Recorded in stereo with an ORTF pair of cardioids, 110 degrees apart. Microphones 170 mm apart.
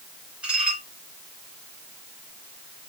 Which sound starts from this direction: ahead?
Dishes clattering, at 0.4 s.